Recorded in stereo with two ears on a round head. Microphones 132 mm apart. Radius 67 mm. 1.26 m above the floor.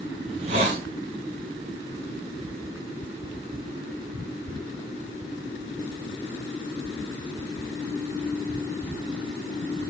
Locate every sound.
0.3 s a hiss: 40° right (ahead or behind), 1.3 m